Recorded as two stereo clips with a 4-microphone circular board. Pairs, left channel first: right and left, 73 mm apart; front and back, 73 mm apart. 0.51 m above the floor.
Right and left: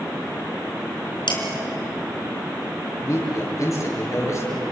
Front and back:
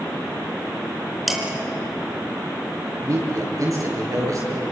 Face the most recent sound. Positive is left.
turn(degrees=-135)